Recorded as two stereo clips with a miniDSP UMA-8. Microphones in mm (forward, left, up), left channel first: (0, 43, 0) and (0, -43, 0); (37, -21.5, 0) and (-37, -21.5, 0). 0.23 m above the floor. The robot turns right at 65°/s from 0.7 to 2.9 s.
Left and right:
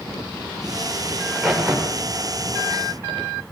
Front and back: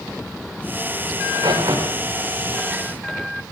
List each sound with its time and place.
1.2 s a crack: 155° left, 7.5 m; by 3.3 s 90° right, 7.5 m